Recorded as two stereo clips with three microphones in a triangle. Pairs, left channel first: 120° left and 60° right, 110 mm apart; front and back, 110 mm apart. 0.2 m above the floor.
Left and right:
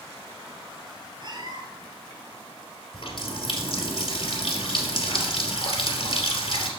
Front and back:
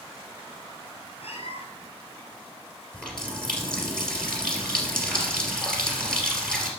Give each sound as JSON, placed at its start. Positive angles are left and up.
{"t": 1.2, "sound": "a cat meowing", "azimuth_deg": -15, "distance_m": 1.9}
{"t": 2.9, "sound": "a running tap", "azimuth_deg": 85, "distance_m": 3.0}